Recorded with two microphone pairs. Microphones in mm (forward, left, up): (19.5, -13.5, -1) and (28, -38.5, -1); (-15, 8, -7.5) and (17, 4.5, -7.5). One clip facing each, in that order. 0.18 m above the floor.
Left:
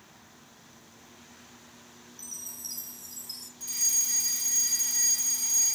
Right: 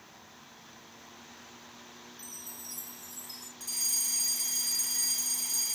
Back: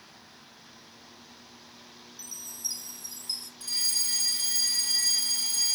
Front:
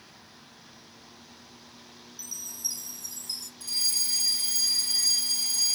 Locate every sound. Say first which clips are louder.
2.2 s a chime: left 7 dB, front 2 dB; 120° left, 0.7 m
3.6 s a fire alarm: left 4 dB, front 1 dB; straight behind, 3.5 m